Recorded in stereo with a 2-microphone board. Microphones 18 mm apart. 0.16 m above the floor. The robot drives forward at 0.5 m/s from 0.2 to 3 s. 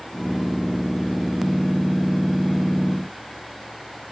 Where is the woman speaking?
No woman speaking in this recording.